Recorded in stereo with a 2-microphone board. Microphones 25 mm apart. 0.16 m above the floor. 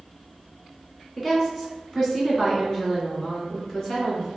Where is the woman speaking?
15° left (ahead or behind), 1.6 m; by 4.3 s 35° left (ahead or behind), 2 m.